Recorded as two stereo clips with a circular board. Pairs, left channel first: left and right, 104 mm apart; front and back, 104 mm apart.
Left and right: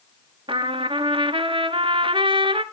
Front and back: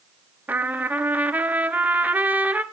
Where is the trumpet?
110° right, 0.8 m.